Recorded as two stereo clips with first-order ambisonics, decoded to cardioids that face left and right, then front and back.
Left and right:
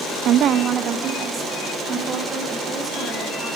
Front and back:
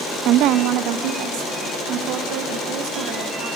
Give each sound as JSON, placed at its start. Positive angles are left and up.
{"t": 0.2, "sound": "a woman speaking", "azimuth_deg": -135, "distance_m": 0.6}